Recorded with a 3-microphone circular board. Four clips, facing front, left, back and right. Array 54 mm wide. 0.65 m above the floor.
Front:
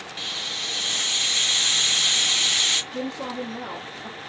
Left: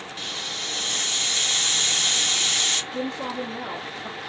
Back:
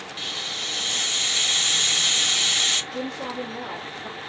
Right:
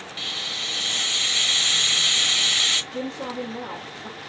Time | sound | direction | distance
0.2 | a hiss | 80° right | 1.1 m
2.9 | a woman speaking | 35° left | 1.1 m